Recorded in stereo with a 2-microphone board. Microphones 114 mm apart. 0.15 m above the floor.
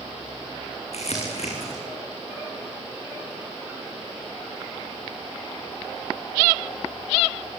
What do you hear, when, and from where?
0.9 s crumpling: 70° left (ahead or behind), 5.5 m